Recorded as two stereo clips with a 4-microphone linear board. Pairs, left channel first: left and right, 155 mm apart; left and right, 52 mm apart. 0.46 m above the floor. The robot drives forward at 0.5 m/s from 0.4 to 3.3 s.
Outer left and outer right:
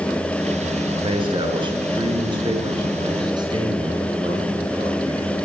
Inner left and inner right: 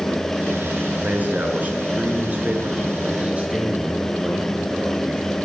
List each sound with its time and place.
1.0 s a man speaking: 35° right (ahead or behind), 6 m; by 5.3 s 25° right (ahead or behind), 7 m